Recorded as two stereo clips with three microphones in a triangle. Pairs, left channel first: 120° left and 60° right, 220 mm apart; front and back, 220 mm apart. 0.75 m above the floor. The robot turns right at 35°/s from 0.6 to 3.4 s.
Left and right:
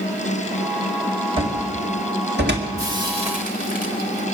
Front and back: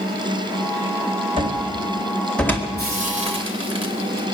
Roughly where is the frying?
Behind right.